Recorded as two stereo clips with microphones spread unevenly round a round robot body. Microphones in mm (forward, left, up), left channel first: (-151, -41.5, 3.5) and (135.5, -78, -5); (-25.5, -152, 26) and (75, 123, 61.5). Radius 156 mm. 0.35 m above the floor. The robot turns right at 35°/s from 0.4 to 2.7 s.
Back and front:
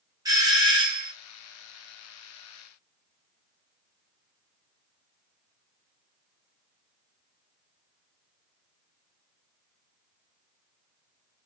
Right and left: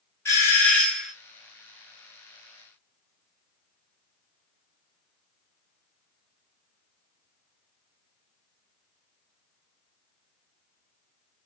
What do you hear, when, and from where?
0.2 s a doorbell: 60° right, 1.8 m; by 1.1 s 35° right, 1.8 m